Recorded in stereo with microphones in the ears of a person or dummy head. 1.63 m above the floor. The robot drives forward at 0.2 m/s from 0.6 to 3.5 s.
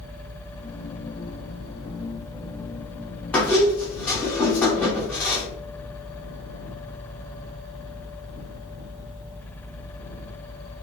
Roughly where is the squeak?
Centre.